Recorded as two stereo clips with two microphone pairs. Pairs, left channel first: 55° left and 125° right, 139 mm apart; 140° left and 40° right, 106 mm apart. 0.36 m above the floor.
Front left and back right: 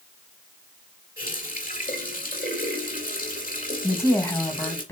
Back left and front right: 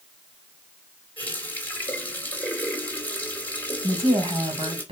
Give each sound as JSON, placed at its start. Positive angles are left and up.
{"t": 1.2, "sound": "a running tap", "azimuth_deg": 65, "distance_m": 3.5}
{"t": 3.8, "sound": "a woman speaking", "azimuth_deg": -15, "distance_m": 3.0}